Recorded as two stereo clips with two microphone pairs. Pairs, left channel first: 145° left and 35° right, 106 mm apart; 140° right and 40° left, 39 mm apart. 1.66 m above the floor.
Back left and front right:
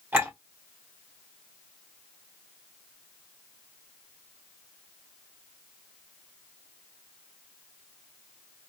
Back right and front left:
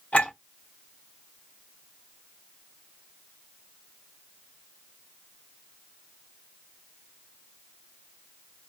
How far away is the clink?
About 1.8 m.